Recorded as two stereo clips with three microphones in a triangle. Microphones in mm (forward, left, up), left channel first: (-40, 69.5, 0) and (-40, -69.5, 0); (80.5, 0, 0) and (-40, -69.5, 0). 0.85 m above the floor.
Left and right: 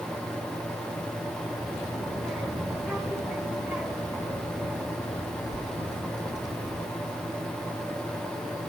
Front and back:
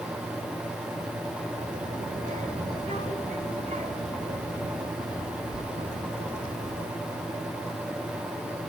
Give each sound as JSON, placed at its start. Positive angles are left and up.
{"t": 1.6, "sound": "a child speaking", "azimuth_deg": -175, "distance_m": 1.9}